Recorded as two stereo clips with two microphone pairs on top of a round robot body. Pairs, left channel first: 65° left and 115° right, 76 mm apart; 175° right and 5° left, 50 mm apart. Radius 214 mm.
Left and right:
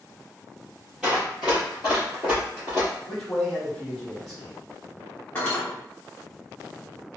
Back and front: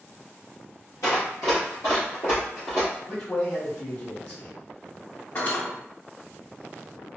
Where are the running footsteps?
165° left, 1.6 m; by 2.9 s 130° right, 1.1 m.